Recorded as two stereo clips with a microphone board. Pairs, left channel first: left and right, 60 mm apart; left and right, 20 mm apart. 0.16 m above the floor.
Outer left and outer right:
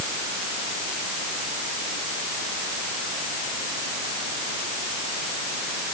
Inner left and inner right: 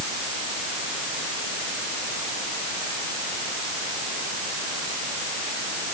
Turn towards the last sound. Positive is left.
No sound to turn to.